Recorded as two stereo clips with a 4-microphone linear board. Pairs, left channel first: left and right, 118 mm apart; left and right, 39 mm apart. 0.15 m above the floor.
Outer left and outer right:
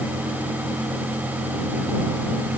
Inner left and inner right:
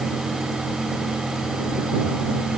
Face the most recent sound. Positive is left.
No sound to turn to.